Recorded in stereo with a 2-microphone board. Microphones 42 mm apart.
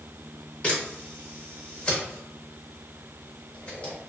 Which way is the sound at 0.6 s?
30° left (ahead or behind).